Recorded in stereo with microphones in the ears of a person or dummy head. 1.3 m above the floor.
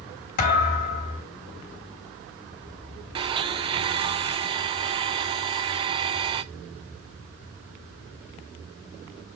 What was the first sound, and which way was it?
A thud, 45° left (ahead or behind).